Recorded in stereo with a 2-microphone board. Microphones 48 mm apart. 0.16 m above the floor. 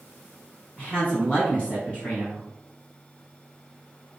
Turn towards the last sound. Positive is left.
turn(degrees=25)  # may be behind; listen again after turning